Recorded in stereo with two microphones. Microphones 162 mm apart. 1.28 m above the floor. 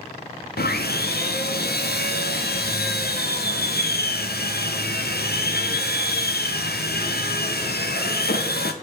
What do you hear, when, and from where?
0.6 s sawing: 85° left, 0.7 m